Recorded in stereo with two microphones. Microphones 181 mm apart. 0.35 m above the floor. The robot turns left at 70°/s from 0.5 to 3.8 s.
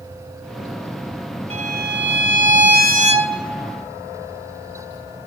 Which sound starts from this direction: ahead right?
A violin, at 1.5 s.